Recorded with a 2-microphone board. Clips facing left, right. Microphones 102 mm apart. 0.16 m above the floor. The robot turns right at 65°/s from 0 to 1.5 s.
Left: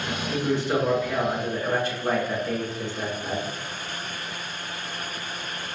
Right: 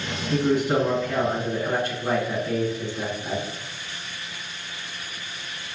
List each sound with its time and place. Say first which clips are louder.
0.3 s a man speaking: right 4 dB; 25° right (ahead or behind), 1.3 m; by 3.4 s 10° left (ahead or behind), 1.3 m